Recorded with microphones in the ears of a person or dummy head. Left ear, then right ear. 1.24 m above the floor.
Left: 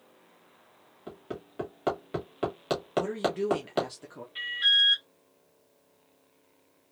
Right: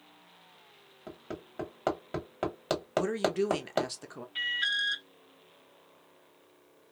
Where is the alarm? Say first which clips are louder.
Left 6 dB; 15° right (ahead or behind), 0.8 m.